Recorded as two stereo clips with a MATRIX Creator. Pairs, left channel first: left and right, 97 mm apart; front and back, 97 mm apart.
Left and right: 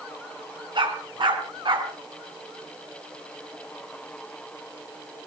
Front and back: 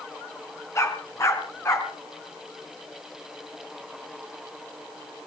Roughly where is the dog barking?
Ahead right.